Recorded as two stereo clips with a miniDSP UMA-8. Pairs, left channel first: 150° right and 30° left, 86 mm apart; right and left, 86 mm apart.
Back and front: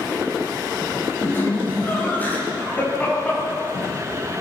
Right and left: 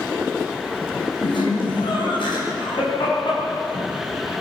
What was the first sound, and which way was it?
Laughter, 90° right.